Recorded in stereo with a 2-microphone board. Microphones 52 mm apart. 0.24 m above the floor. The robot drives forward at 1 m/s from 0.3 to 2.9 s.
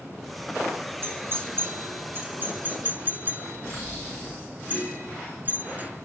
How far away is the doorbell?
About 3 m.